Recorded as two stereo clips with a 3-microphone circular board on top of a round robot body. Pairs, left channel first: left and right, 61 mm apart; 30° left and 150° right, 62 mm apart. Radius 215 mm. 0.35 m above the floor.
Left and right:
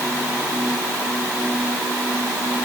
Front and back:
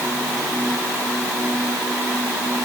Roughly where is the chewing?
No chewing in this recording.